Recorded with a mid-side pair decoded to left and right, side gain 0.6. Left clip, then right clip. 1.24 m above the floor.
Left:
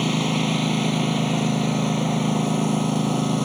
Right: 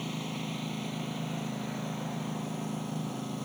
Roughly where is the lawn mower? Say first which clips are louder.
Left 14 dB; ahead left.